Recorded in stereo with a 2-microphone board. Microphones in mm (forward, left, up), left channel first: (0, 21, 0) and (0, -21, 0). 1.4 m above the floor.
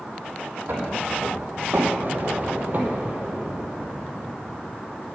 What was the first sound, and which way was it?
Footsteps, 50° right (ahead or behind).